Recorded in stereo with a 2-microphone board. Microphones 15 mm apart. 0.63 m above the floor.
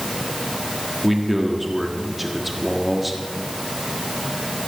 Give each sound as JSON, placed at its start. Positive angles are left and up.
{"t": 1.0, "sound": "a man speaking", "side_deg": 0, "distance_m": 1.3}